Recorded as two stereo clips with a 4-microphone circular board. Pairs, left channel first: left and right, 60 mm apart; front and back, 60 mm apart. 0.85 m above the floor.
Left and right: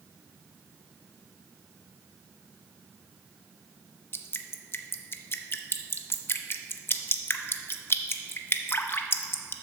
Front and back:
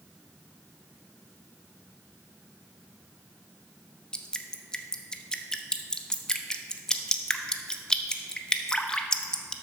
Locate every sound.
4.1 s dripping: 70° left, 0.6 m